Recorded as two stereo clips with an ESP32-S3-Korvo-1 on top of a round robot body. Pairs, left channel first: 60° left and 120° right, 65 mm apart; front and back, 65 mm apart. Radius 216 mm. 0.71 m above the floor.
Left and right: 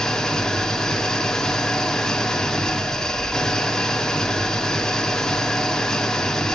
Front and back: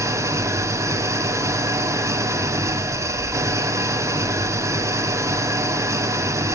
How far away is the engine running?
About 2.5 m.